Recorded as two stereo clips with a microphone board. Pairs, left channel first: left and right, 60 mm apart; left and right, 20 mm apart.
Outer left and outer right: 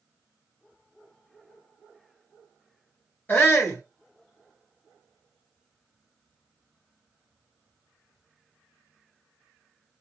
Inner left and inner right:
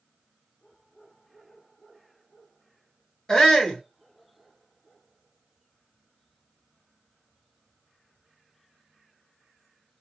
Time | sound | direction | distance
3.3 | a shout | 35° left (ahead or behind) | 2.0 m